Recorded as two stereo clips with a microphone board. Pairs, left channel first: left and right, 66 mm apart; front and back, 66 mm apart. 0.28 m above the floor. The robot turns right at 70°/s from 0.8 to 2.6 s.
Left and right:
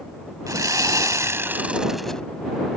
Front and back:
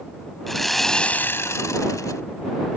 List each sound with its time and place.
0.5 s sawing: 85° right; by 2.2 s 10° left